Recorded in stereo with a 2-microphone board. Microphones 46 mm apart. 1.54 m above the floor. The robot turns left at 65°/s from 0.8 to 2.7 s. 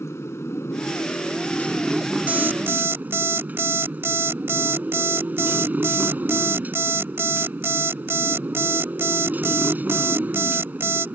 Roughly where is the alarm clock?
Right.